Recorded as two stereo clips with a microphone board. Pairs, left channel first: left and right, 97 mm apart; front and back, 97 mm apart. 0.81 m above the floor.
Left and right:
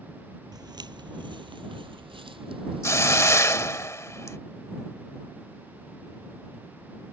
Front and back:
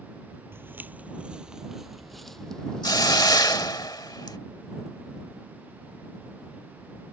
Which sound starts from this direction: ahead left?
A hiss, at 2.8 s.